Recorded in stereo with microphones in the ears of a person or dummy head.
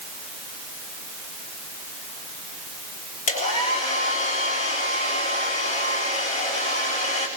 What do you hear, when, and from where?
3.3 s a hair dryer: 40° left (ahead or behind), 3.5 m